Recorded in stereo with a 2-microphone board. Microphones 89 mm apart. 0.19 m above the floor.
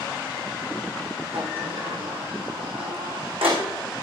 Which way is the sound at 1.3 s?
85° right.